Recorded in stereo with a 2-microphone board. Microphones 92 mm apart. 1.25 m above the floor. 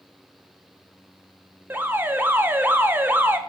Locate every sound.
1.7 s an alarm: 20° right (ahead or behind), 0.7 m